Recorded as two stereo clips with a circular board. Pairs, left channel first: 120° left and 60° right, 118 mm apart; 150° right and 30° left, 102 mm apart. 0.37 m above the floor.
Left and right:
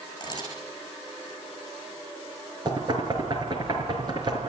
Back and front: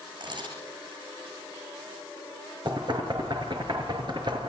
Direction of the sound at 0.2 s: 65° left.